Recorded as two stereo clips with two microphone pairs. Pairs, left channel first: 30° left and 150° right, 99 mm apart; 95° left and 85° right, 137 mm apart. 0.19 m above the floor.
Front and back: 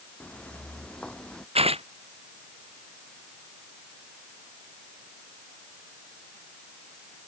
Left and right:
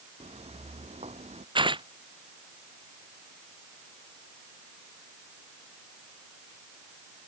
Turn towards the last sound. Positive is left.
turn(degrees=-140)